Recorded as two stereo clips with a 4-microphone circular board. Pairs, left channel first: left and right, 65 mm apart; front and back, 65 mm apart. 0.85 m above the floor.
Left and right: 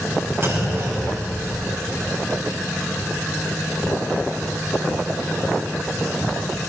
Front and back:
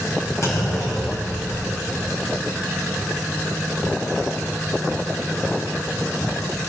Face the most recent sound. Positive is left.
turn(degrees=-40)